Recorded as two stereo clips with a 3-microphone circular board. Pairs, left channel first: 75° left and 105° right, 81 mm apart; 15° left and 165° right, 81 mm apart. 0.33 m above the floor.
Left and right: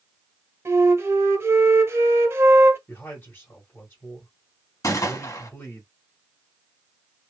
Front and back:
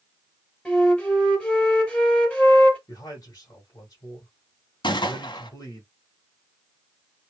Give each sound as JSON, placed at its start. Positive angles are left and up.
{"t": 0.7, "sound": "a flute", "azimuth_deg": -60, "distance_m": 2.0}
{"t": 2.9, "sound": "a man speaking", "azimuth_deg": 30, "distance_m": 1.6}
{"t": 4.8, "sound": "a gunshot", "azimuth_deg": 30, "distance_m": 1.0}